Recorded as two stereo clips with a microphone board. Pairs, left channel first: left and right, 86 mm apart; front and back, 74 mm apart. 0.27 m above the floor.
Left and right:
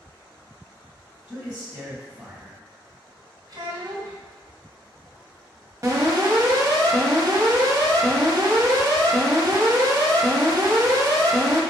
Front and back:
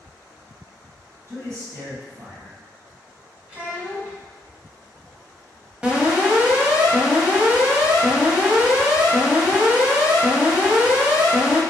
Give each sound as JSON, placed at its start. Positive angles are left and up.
{"t": 1.3, "sound": "a man speaking", "azimuth_deg": -165, "distance_m": 1.6}
{"t": 3.5, "sound": "a child speaking", "azimuth_deg": -115, "distance_m": 1.6}
{"t": 5.8, "sound": "an alarm", "azimuth_deg": -110, "distance_m": 0.8}